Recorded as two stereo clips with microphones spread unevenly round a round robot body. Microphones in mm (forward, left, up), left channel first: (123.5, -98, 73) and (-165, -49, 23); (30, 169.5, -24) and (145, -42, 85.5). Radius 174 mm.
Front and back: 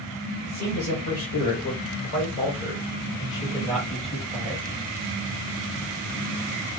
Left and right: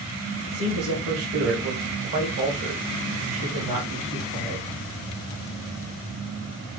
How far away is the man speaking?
About 2 m.